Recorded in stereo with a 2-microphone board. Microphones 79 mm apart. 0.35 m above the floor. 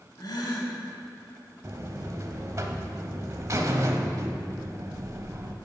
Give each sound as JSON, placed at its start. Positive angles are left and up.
{"t": 0.2, "sound": "a gasp", "side_deg": 65, "distance_m": 1.4}
{"t": 1.6, "sound": "a buzzer", "side_deg": -40, "distance_m": 0.6}